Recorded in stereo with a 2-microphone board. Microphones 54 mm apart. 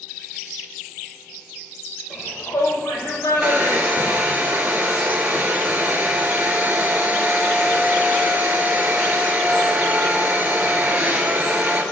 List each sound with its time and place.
2.1 s a shout: 65° left (ahead or behind), 4.5 m
3.4 s a hair dryer: 30° right (ahead or behind), 2.0 m